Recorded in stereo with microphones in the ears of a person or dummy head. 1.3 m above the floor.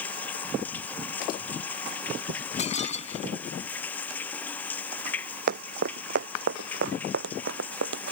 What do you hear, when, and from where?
0.0 s running water: 10° left (ahead or behind)
2.6 s breaking glass: 40° left (ahead or behind)
5.5 s running footsteps: 55° right (ahead or behind); by 8.1 s 70° right (ahead or behind)